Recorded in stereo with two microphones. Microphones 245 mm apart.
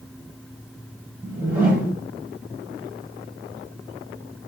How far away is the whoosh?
About 1.5 m.